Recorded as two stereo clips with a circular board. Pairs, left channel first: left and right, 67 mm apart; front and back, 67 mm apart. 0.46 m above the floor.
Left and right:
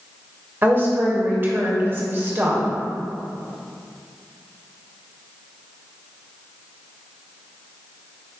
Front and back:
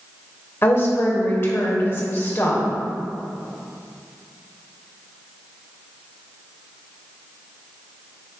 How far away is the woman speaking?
About 1.8 m.